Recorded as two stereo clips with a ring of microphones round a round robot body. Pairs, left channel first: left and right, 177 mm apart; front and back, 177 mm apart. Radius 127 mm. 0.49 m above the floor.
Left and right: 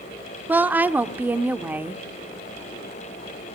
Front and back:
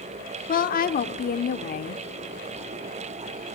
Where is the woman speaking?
10° right, 1.0 m.